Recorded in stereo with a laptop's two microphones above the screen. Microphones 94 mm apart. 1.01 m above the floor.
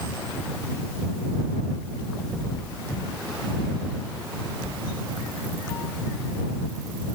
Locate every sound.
Only background noise.